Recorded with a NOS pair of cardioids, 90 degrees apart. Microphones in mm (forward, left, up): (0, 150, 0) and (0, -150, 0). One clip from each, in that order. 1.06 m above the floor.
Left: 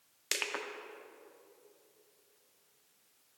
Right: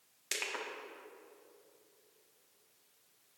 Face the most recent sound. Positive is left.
turn(degrees=30)